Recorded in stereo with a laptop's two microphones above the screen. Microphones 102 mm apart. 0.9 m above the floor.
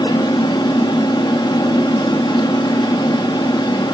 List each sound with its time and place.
0.0 s a machine running: 50° left (ahead or behind), 1.6 m